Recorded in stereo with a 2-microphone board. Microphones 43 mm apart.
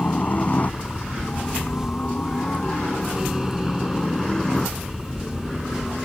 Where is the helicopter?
40° left (ahead or behind); by 6.0 s 10° left (ahead or behind).